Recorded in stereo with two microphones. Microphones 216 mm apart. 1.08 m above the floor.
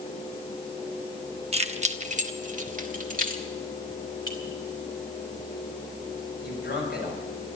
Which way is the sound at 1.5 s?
30° right (ahead or behind).